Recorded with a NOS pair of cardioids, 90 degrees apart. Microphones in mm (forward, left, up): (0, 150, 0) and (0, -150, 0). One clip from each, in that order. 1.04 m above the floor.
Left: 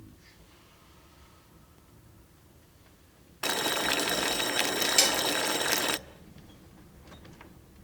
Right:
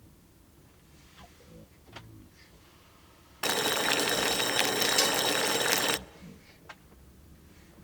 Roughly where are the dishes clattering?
Ahead.